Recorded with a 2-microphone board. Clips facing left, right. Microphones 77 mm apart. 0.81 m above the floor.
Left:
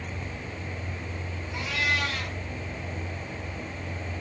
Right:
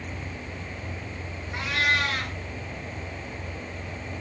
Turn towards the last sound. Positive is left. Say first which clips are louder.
# right 3 dB
turn(degrees=-55)  # may be behind; listen again after turning